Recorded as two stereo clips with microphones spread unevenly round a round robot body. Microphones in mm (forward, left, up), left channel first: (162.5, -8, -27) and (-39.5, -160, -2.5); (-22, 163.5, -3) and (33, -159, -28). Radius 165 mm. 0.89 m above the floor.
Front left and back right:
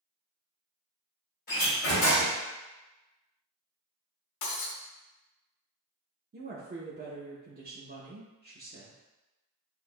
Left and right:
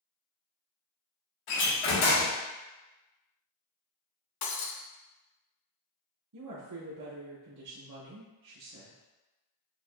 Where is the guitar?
No guitar in this recording.